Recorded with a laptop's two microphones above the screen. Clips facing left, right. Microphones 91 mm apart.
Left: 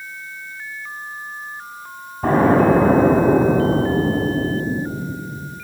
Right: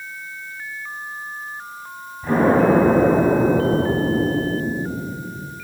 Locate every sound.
2.2 s an explosion: 60° left (ahead or behind), 7.5 m